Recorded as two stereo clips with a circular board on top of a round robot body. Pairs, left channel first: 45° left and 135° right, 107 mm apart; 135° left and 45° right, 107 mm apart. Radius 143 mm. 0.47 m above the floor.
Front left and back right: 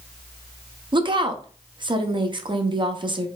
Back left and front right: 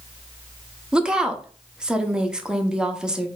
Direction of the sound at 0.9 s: 125° right.